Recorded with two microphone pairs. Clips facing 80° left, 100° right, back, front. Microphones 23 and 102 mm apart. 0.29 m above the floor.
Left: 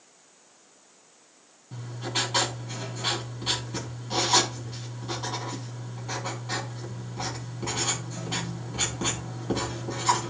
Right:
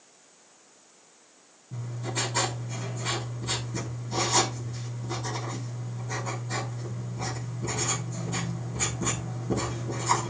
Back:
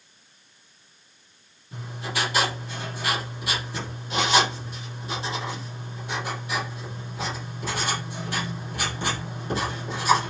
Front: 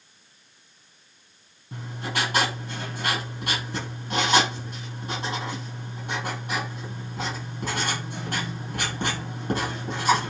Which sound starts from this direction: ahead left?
Writing, at 1.7 s.